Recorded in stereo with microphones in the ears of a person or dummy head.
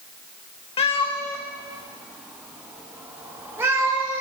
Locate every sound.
0.8 s a cat meowing: 30° left (ahead or behind), 1.2 m; by 4.2 s 20° right (ahead or behind), 3.5 m